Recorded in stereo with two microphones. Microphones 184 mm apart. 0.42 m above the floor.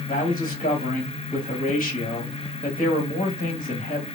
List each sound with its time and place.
0.1 s a man speaking: 50° left (ahead or behind), 2 m